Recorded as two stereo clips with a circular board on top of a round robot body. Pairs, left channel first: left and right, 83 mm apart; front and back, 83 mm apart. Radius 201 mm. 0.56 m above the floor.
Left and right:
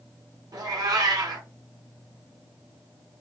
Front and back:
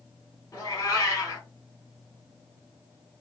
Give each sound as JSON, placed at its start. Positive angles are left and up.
{"t": 0.5, "sound": "a cat meowing", "azimuth_deg": -50, "distance_m": 1.3}